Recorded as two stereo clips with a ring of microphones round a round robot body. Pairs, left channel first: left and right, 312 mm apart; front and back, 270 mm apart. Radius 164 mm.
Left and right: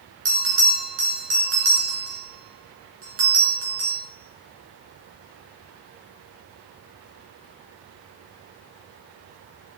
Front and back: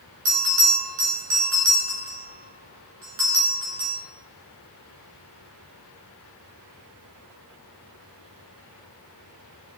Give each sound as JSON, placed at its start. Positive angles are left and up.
{"t": 0.2, "sound": "a bell", "azimuth_deg": -150, "distance_m": 5.0}